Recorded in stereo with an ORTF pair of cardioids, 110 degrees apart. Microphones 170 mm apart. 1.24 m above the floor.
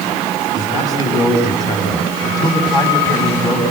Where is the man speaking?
20° left, 8 m.